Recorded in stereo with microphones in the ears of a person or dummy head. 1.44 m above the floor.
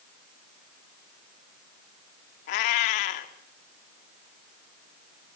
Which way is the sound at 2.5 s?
55° left (ahead or behind).